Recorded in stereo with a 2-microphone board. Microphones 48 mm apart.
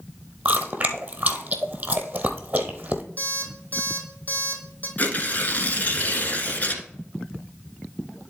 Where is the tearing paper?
35° left (ahead or behind), 1.1 m.